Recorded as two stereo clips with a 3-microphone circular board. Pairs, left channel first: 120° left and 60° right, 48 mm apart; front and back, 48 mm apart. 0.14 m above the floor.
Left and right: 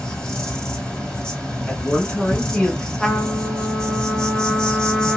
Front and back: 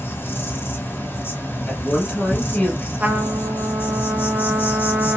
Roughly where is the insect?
Ahead left.